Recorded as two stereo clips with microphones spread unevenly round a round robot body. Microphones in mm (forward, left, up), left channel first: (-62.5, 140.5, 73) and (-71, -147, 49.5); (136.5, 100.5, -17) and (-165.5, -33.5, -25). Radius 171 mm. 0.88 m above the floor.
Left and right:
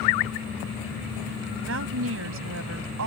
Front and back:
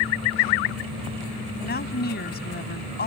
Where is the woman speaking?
40° right.